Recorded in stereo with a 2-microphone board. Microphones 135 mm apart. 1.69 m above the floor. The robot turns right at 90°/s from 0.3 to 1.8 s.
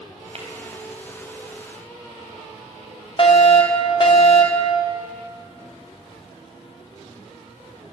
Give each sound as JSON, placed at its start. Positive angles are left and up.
{"t": 0.3, "sound": "tapping", "side_deg": -50, "distance_m": 3.5}
{"t": 3.2, "sound": "a fire alarm", "side_deg": 40, "distance_m": 2.0}